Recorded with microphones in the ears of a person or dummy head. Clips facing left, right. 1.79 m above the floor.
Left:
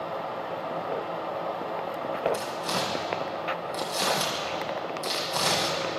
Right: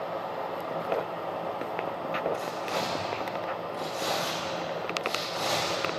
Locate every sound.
2.3 s tearing paper: 80° left, 9.5 m